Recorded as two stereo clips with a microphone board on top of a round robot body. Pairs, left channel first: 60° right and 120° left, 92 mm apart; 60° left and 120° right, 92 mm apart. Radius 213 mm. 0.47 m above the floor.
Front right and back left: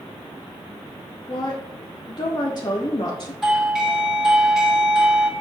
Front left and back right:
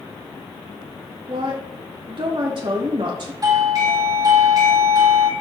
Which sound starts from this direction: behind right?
A doorbell, at 3.4 s.